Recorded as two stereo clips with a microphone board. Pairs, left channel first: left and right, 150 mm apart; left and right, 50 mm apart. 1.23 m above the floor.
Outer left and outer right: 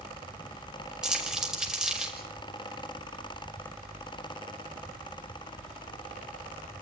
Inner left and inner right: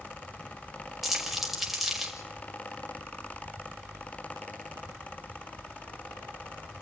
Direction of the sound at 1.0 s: 5° right (ahead or behind).